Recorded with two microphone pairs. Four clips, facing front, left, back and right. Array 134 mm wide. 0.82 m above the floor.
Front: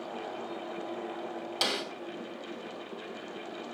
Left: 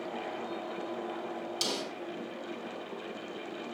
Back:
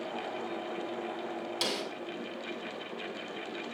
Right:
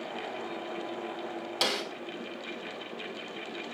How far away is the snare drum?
About 2.5 m.